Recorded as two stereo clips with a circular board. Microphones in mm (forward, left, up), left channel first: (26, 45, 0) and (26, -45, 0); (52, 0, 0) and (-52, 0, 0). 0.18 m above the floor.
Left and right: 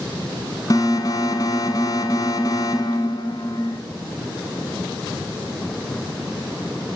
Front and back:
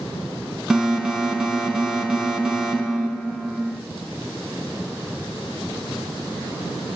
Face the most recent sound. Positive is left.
turn(degrees=95)